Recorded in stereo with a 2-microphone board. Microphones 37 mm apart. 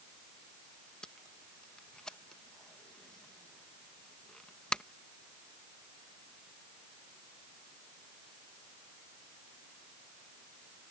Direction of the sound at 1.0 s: 25° left (ahead or behind).